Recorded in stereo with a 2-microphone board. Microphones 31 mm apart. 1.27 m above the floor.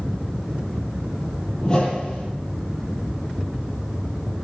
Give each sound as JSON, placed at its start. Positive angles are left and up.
{"t": 1.6, "sound": "a whoosh", "side_deg": 25, "distance_m": 5.5}